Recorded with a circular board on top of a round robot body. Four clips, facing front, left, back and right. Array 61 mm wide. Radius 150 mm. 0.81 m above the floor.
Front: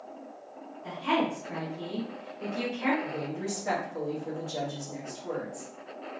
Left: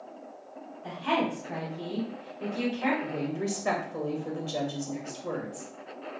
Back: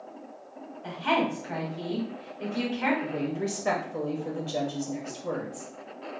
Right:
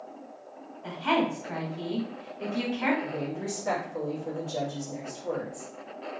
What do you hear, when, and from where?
0.8 s a woman speaking: 140° right, 1.6 m
3.0 s a woman speaking: 140° left, 1.1 m